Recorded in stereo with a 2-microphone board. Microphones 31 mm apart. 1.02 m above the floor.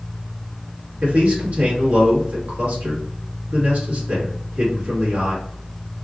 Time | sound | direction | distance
1.0 | a man speaking | 65° right (ahead or behind) | 1.4 m